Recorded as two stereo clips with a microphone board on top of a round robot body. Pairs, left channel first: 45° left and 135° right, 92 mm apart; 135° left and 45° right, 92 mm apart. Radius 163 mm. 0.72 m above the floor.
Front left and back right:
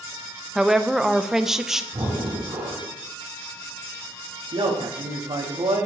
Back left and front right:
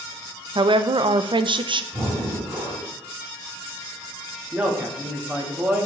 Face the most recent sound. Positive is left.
turn(degrees=-115)